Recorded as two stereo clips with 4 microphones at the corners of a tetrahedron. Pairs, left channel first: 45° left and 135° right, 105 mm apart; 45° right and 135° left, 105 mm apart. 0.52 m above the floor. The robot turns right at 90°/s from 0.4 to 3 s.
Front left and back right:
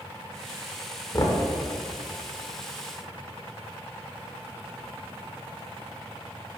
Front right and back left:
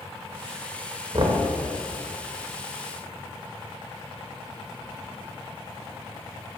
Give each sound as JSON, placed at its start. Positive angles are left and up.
{"t": 1.1, "sound": "knocking", "azimuth_deg": 95, "distance_m": 1.0}